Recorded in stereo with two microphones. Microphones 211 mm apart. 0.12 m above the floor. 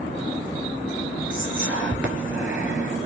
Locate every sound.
1.3 s whispering: 5° right (ahead or behind), 1.6 m